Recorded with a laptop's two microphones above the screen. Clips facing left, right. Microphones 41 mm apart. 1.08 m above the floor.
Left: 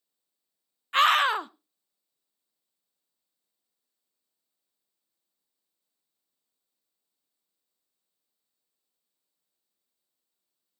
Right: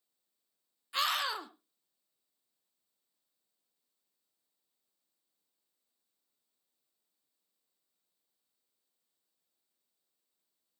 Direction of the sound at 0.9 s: 50° left (ahead or behind).